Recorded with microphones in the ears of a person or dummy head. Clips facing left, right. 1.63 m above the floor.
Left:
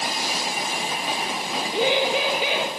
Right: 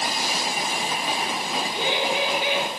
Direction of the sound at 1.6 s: 70° left (ahead or behind).